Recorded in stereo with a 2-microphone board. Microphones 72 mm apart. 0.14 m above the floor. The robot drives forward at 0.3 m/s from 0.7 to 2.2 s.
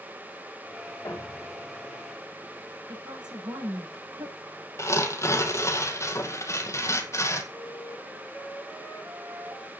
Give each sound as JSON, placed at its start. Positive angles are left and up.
{"t": 1.1, "sound": "a thud", "side_deg": 40, "distance_m": 8.5}
{"t": 2.9, "sound": "a woman speaking", "side_deg": -80, "distance_m": 9.0}
{"t": 4.8, "sound": "tearing paper", "side_deg": 40, "distance_m": 2.0}
{"t": 7.5, "sound": "a flute", "side_deg": 30, "distance_m": 8.5}